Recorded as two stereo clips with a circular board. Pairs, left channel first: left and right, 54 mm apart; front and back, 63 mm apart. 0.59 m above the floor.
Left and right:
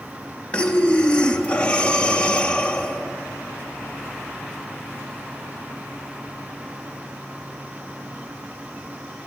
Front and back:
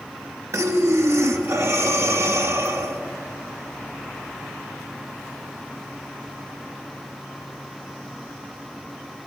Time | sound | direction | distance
0.5 | breathing | 155° left | 0.7 m